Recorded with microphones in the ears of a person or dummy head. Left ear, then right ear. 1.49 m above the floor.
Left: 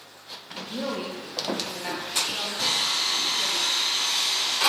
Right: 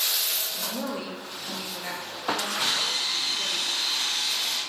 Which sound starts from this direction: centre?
A woman speaking, at 0.5 s.